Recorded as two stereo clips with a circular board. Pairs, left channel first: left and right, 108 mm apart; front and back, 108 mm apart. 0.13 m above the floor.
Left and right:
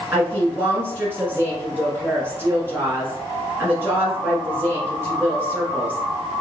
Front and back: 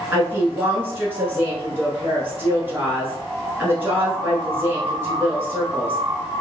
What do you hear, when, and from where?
0.1 s a woman speaking: 135° right, 1.4 m